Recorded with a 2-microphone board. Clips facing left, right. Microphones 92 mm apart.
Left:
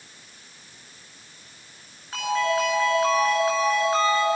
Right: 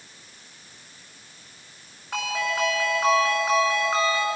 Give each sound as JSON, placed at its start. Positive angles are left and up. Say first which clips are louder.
{"t": 2.1, "sound": "a ringtone", "louder": "left 4 dB", "side_deg": -75, "distance_m": 8.5}